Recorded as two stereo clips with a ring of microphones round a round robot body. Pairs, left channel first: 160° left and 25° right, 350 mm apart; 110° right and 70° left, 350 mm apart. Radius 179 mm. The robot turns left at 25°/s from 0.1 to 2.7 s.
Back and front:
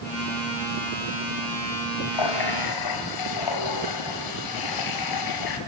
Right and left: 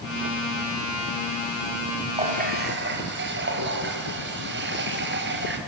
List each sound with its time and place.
2.1 s a running tap: 140° left, 3 m; by 5.6 s 130° left, 3 m